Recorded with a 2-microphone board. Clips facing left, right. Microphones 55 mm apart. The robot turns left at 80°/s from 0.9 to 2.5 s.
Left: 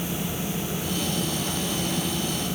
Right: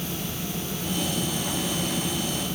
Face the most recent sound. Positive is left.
No sound to turn to.